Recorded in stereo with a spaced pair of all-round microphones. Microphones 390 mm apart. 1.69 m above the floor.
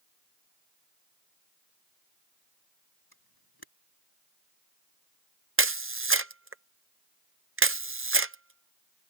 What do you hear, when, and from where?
3.1 s a camera shutter: 65° left (ahead or behind)
5.6 s a camera shutter: 35° right (ahead or behind)